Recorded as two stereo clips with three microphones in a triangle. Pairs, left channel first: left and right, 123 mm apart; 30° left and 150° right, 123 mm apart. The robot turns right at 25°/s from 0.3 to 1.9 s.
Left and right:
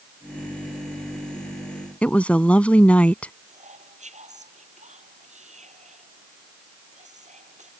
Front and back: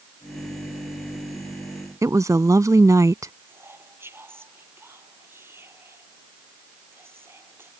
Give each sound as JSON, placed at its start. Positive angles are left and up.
{"t": 2.0, "sound": "a woman speaking", "azimuth_deg": 165}
{"t": 3.5, "sound": "whispering", "azimuth_deg": -80}